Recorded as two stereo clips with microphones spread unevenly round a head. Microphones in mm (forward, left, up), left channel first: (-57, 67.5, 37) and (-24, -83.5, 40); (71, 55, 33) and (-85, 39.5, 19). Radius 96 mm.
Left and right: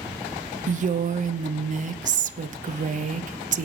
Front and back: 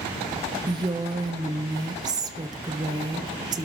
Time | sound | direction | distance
0.7 | a woman speaking | 110° right | 0.7 m